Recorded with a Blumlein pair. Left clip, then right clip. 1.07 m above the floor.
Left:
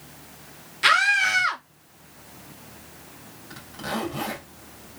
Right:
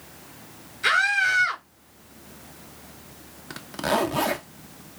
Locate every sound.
0.8 s a scream: 50° left, 1.8 m
3.5 s a zipper: 30° right, 0.7 m